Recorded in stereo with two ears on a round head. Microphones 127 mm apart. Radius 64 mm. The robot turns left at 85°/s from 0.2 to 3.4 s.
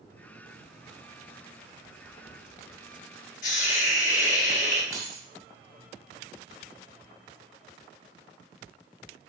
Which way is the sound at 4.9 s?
20° right (ahead or behind).